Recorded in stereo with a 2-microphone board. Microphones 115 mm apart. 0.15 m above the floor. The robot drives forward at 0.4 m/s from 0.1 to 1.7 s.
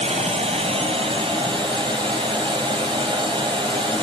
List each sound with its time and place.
0.0 s running water: 70° right (ahead or behind), 1.0 m; by 4.0 s 45° right (ahead or behind), 1.3 m